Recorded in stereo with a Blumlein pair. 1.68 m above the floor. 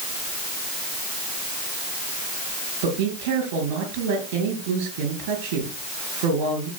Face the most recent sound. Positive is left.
turn(degrees=-45)